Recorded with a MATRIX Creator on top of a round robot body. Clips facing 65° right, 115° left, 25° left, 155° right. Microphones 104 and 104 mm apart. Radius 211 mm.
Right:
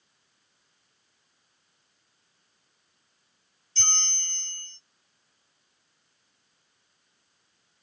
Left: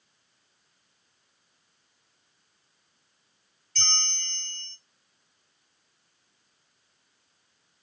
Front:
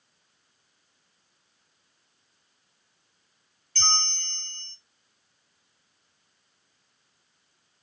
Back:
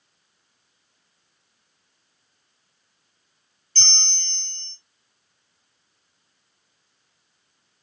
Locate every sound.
3.8 s a bell: 130° left, 1.9 m